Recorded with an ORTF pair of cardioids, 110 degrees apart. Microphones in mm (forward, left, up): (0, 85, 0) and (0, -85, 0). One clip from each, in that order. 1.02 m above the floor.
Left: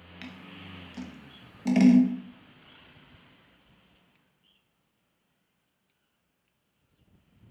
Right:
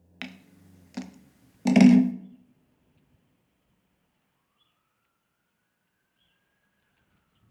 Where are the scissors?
35° right, 0.6 m.